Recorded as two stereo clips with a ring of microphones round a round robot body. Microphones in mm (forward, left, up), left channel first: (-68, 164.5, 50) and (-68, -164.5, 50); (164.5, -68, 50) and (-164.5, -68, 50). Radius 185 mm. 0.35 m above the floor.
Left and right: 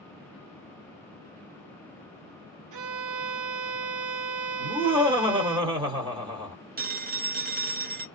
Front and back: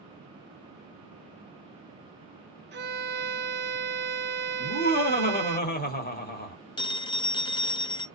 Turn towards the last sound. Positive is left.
turn(degrees=-65)